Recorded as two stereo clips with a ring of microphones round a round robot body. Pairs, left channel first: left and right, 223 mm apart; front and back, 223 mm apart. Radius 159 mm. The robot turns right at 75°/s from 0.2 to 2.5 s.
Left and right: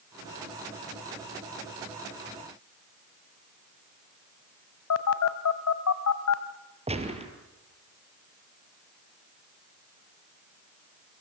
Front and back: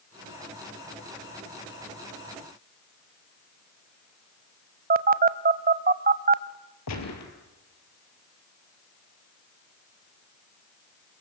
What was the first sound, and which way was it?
A phone buzzing, 125° left.